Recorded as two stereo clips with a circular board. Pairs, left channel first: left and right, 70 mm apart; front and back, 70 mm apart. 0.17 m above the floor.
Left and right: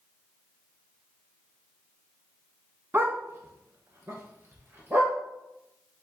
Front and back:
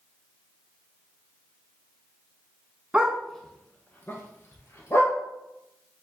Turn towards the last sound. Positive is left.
turn(degrees=-40)